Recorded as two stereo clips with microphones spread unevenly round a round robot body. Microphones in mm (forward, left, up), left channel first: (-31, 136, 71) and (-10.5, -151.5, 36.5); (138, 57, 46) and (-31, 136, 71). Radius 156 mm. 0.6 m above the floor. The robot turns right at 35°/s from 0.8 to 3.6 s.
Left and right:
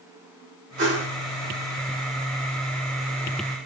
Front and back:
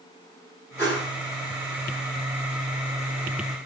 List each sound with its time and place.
0.8 s a whoosh: 95° right, 1.3 m; by 1.1 s 80° right, 1.3 m